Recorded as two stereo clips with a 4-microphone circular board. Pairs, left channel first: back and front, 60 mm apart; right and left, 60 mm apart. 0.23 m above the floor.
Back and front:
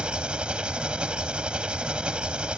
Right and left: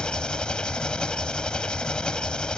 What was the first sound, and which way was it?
An engine running, 40° right.